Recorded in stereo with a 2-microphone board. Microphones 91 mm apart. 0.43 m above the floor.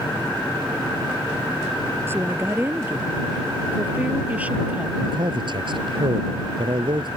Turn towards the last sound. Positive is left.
turn(degrees=-60)  # may be behind; listen again after turning